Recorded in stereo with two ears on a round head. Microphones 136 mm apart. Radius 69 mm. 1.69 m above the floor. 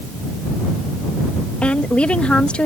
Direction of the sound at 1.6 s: 5° left (ahead or behind).